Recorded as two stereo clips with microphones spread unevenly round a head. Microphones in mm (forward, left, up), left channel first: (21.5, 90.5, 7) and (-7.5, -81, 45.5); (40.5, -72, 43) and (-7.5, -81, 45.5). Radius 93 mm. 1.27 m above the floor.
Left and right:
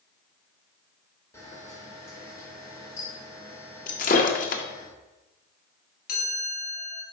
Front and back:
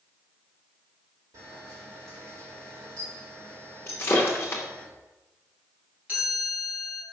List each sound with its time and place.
1.3 s a camera shutter: 160° left, 1.8 m
3.9 s breaking glass: 50° left, 0.6 m
6.1 s a chime: 120° left, 2.0 m